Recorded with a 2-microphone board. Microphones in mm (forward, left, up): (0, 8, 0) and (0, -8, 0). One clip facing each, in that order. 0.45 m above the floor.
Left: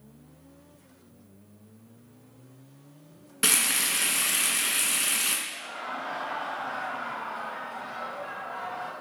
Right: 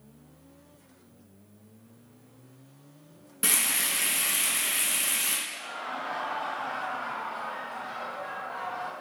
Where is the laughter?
10° right (ahead or behind), 1.6 m.